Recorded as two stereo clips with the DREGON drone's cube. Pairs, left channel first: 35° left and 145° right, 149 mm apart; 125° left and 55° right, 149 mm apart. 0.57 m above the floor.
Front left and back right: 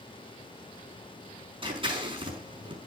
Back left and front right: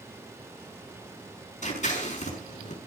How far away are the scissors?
About 5.5 m.